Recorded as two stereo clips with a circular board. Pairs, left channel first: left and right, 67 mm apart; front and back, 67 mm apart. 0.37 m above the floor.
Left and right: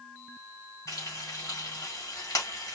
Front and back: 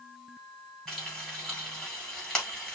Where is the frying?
80° left, 3 m.